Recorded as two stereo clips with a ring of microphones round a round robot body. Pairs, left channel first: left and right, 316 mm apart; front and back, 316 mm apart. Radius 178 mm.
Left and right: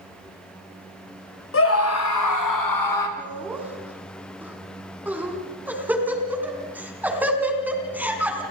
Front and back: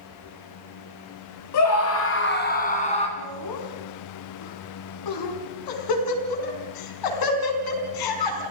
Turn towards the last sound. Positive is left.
turn(degrees=-5)